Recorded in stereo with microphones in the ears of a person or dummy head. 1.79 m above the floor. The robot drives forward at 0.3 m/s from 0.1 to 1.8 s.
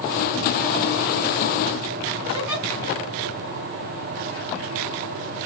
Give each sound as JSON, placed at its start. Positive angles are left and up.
{"t": 2.3, "sound": "a giggle", "side_deg": -15, "distance_m": 2.5}